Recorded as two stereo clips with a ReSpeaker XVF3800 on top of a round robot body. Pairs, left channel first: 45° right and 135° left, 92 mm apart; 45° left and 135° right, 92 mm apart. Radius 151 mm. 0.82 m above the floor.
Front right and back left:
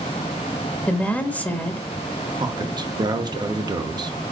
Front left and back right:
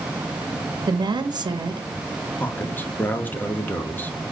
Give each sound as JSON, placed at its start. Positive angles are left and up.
{"t": 0.9, "sound": "a woman speaking", "azimuth_deg": -115, "distance_m": 1.1}
{"t": 2.4, "sound": "a man speaking", "azimuth_deg": 110, "distance_m": 1.1}